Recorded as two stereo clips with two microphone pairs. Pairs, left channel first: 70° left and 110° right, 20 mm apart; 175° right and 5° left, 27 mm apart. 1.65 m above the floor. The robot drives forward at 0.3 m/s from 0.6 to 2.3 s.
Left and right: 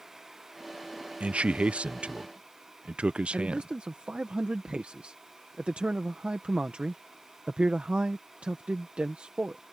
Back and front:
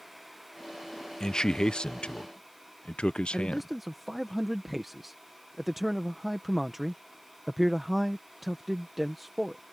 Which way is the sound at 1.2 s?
110° right.